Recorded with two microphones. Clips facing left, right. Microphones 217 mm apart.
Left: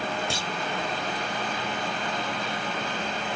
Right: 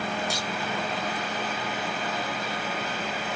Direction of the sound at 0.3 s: 30° left (ahead or behind).